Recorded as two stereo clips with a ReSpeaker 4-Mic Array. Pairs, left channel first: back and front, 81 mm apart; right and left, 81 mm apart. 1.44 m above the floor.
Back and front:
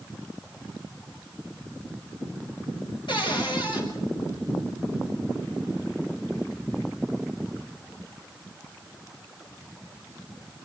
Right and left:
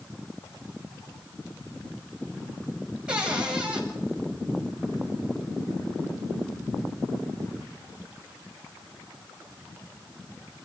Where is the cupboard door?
170° left, 7.5 m.